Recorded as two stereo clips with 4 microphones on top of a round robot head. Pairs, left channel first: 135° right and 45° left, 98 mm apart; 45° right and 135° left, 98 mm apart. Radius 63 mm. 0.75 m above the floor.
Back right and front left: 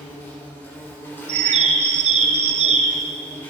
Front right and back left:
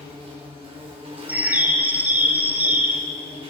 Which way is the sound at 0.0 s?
160° left.